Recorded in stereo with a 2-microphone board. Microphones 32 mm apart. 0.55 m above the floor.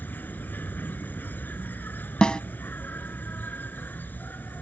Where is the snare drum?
30° left (ahead or behind).